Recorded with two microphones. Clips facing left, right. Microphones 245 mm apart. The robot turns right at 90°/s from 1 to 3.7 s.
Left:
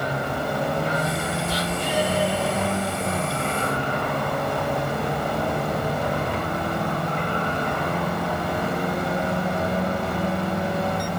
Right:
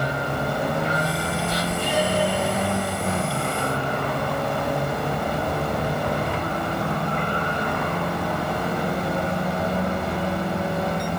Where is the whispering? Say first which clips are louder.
Right 1 dB; 125° right, 2.5 m; by 2.0 s 75° right, 2.5 m.